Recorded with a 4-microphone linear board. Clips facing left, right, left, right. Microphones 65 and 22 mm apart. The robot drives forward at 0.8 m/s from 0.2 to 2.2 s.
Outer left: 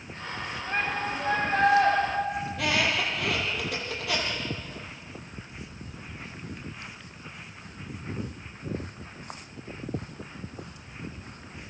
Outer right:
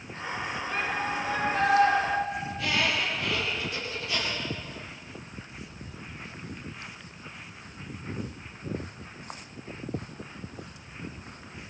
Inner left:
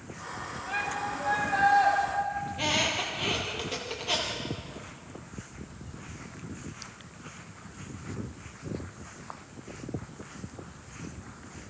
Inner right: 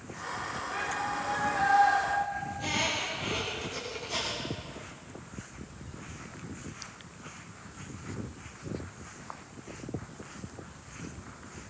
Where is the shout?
80° left, 9.5 m; by 1.9 s 75° left (ahead or behind), 9.5 m.